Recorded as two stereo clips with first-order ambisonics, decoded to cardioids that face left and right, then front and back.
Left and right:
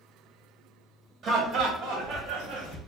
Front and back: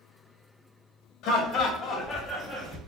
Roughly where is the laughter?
Ahead right.